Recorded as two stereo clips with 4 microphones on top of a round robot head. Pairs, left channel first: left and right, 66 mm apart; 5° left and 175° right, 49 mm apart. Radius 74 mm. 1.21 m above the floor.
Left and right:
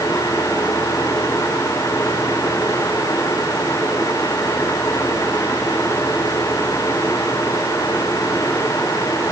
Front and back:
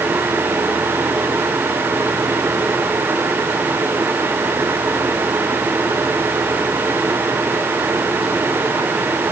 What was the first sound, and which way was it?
Only background noise.